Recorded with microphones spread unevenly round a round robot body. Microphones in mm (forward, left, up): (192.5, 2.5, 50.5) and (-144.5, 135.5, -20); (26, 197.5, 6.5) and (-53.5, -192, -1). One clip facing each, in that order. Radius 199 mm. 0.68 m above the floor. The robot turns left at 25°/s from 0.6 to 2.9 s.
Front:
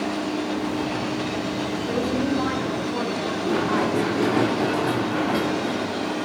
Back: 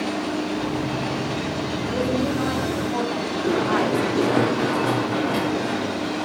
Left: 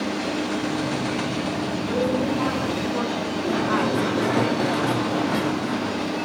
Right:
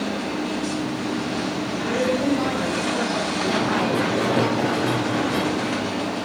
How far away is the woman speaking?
About 3.5 m.